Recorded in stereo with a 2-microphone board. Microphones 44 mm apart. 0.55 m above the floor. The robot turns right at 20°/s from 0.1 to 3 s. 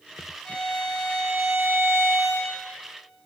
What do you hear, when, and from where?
0.5 s a violin: 150° left, 4 m; by 2.6 s 165° right, 4 m